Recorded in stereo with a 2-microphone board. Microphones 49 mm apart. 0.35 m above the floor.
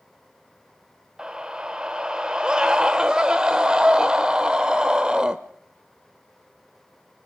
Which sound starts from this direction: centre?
A scream, at 1.2 s.